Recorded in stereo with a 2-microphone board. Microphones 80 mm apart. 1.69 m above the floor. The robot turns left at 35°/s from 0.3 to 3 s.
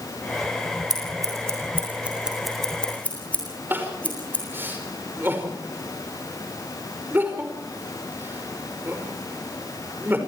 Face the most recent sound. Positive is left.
turn(degrees=-25)  # may be behind; listen again after turning